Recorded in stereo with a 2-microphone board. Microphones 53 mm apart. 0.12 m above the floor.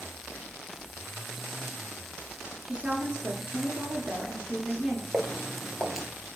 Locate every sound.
2.6 s a woman speaking: 20° right (ahead or behind), 1.5 m
5.1 s footsteps: 5° right (ahead or behind), 1.2 m